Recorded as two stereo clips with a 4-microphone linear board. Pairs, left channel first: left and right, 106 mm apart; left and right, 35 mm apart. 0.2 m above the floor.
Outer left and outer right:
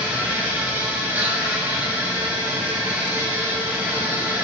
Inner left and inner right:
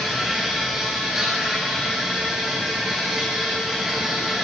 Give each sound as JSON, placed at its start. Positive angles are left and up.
{"t": 0.0, "sound": "an insect", "side_deg": -15, "distance_m": 3.5}